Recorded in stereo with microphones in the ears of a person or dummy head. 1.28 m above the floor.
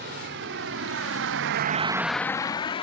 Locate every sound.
0.0 s a vehicle: 65° right (ahead or behind); by 2.8 s 30° left (ahead or behind)